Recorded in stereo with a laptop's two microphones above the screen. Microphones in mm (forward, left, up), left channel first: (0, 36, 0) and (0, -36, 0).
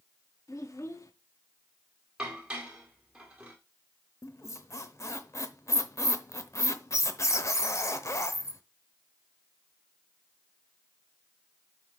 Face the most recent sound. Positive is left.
turn(degrees=40)  # may be behind; listen again after turning